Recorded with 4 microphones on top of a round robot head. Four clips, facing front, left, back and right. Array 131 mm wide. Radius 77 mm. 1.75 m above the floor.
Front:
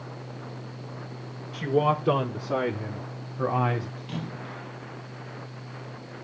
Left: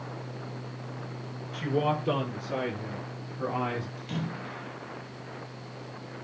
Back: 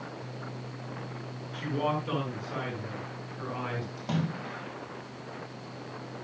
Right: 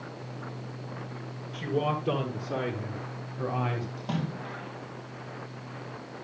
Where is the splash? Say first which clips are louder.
Right 2 dB, back 3 dB; 135° right, 6 m.